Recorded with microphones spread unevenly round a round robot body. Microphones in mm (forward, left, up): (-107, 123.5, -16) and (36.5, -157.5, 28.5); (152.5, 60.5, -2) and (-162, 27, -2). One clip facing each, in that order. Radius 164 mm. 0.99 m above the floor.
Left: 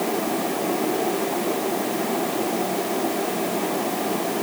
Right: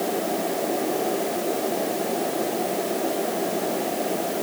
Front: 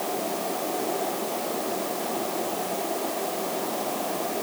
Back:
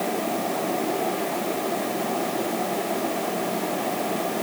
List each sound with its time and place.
Only background noise.